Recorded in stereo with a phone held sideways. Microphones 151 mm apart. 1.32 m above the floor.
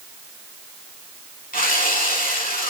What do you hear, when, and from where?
1.5 s sawing: 75° left (ahead or behind), 3.5 m